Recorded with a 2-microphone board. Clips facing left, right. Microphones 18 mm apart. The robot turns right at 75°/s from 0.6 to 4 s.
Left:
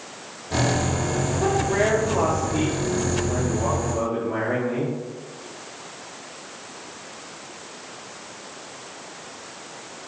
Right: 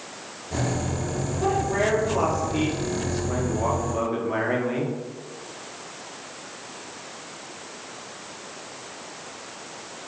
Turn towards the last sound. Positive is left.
turn(degrees=-25)  # may be behind; listen again after turning